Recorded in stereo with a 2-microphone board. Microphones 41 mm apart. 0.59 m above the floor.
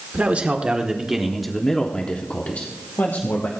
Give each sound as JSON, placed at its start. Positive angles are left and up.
{"t": 0.1, "sound": "a man speaking", "side_deg": -35, "distance_m": 1.5}